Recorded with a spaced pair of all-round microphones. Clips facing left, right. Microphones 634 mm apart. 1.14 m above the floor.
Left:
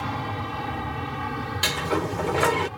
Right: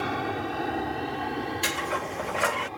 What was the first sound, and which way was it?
An aircraft, 30° left (ahead or behind).